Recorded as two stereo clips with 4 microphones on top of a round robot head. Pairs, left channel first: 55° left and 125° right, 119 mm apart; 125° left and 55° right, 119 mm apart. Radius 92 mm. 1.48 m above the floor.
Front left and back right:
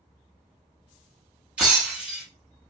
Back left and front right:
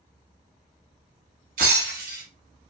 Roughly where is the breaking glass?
Ahead right.